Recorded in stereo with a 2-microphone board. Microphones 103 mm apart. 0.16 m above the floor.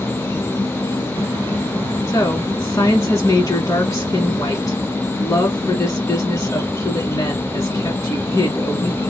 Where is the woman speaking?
35° left (ahead or behind), 1.3 m.